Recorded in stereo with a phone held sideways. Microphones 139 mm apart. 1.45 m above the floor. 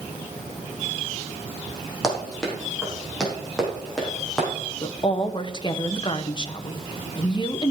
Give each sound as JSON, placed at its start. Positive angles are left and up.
{"t": 2.0, "sound": "running footsteps", "side_deg": 5, "distance_m": 4.0}
{"t": 4.8, "sound": "a woman speaking", "side_deg": 35, "distance_m": 1.0}